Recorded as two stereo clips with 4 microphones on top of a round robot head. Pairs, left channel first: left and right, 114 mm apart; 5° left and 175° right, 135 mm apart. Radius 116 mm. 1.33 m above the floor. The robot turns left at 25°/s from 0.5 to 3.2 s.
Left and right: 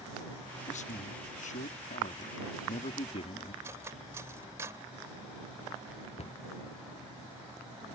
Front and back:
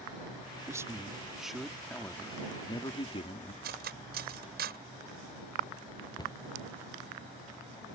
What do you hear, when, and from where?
0.7 s a man speaking: 120° left; by 3.5 s 55° left
3.6 s cutlery clinking: 165° right
6.2 s a cupboard door: 65° left